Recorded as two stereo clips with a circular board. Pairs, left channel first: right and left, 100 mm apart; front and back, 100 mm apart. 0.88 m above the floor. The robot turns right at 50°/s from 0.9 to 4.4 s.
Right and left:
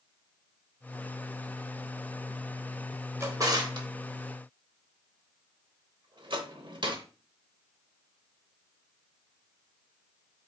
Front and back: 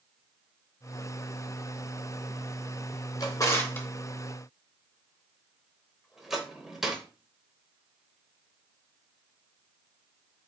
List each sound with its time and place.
3.2 s a drawer: 35° left, 0.8 m; by 7.0 s 95° left, 0.8 m